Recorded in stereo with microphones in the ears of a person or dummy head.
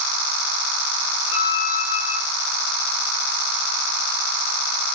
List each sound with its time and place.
1.3 s a violin: 55° left (ahead or behind), 0.9 m